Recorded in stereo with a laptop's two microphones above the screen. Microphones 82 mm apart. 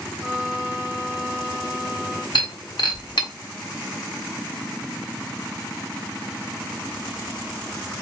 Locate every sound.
0.2 s a violin: 25° right (ahead or behind), 0.9 m
2.4 s breaking glass: 70° left (ahead or behind), 1.3 m